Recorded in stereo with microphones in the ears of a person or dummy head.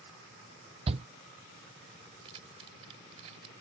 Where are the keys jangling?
30° right (ahead or behind).